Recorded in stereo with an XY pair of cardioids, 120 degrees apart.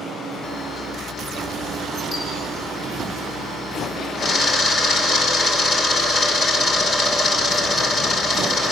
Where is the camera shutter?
50° left, 5 m.